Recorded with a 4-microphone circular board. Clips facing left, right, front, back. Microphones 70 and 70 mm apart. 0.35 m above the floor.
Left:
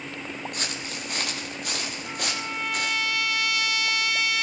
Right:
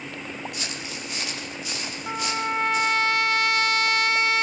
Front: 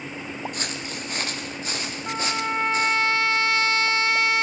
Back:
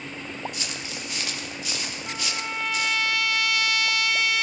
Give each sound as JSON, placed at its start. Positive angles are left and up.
{"t": 0.5, "sound": "footsteps", "azimuth_deg": 45, "distance_m": 7.0}
{"t": 2.1, "sound": "a trumpet", "azimuth_deg": -45, "distance_m": 1.1}